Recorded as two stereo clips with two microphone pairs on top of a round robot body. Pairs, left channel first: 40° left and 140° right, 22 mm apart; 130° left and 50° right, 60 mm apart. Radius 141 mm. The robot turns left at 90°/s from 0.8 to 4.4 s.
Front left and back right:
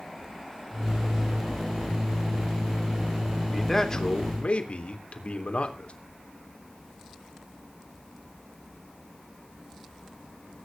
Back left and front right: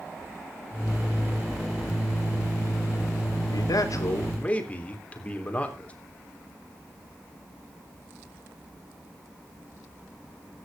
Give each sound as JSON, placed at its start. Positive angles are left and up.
{"t": 3.5, "sound": "a man speaking", "azimuth_deg": 145, "distance_m": 3.5}